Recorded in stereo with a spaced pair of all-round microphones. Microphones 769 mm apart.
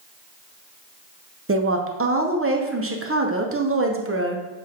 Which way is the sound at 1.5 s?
20° right (ahead or behind).